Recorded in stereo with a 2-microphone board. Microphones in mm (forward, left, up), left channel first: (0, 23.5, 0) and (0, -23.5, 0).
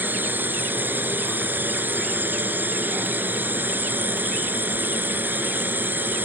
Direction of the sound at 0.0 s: 45° right (ahead or behind).